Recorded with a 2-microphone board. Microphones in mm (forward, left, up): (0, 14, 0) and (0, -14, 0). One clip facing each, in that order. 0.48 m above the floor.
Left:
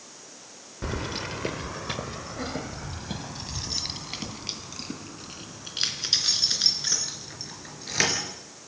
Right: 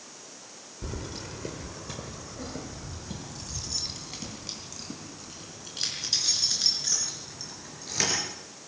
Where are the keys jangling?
55° left (ahead or behind), 0.9 m; by 8.2 s 35° left (ahead or behind), 5.5 m.